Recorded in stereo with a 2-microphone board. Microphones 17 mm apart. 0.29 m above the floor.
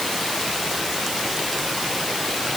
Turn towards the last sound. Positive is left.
No sound to turn to.